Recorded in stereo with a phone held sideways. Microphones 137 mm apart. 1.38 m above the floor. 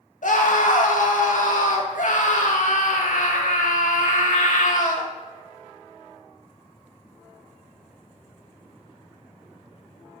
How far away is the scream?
About 2 m.